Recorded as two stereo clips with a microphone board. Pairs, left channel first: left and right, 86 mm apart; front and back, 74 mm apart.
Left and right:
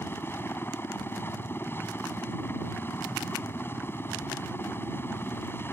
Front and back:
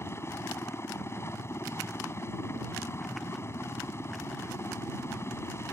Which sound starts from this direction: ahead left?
A helicopter, at 0.0 s.